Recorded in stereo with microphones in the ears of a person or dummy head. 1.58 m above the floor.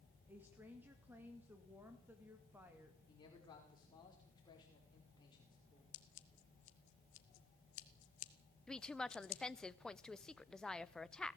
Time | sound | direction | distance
0.3 | a woman speaking | 10° right (ahead or behind) | 2 m
3.1 | a man speaking | 20° left (ahead or behind) | 5.5 m
5.9 | scissors | 60° left (ahead or behind) | 1.2 m
8.7 | a woman speaking | 5° left (ahead or behind) | 0.6 m